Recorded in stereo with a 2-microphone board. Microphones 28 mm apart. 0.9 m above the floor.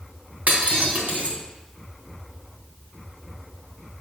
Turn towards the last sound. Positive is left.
turn(degrees=-65)  # may be behind; listen again after turning